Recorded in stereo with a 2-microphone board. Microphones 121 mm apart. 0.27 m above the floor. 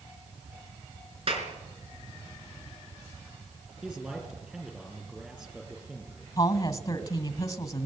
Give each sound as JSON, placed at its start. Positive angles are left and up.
{"t": 1.3, "sound": "a clap", "side_deg": -50, "distance_m": 3.5}
{"t": 3.8, "sound": "a man speaking", "side_deg": -5, "distance_m": 4.0}
{"t": 6.4, "sound": "a woman speaking", "side_deg": 25, "distance_m": 1.9}